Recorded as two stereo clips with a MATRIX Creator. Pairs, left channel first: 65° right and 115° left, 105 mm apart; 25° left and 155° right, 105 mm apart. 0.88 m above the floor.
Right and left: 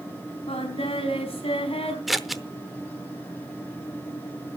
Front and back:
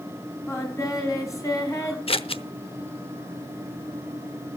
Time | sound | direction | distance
0.5 | singing | 35° right | 4.5 m
2.1 | scissors | 25° left | 0.8 m